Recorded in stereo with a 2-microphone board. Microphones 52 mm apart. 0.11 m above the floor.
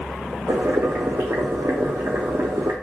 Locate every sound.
0.5 s boiling: 60° right (ahead or behind), 1.3 m